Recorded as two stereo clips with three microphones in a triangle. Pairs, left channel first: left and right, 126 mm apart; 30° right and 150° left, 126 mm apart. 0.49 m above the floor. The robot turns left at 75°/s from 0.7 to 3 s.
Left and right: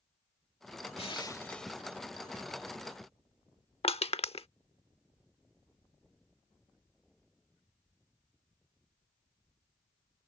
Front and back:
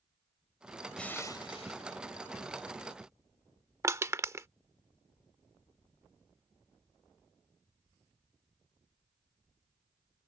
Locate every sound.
1.0 s crushing: 55° left; by 2.0 s 25° right
3.8 s crushing: 90° left